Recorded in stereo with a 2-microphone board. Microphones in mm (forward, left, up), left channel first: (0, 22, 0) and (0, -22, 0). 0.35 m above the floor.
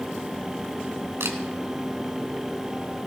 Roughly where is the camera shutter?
Right.